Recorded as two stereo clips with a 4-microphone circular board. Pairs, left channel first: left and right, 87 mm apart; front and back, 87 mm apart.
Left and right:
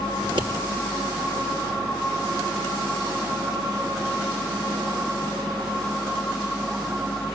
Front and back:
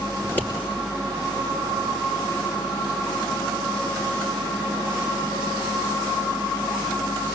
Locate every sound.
0.2 s scissors: 65° right, 5 m